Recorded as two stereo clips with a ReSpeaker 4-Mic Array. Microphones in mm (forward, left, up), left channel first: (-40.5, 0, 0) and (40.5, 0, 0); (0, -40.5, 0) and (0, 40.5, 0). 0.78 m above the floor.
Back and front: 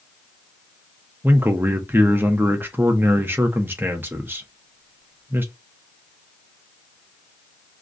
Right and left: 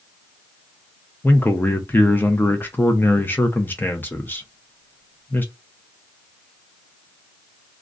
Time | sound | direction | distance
1.2 | a man speaking | 45° right | 0.6 m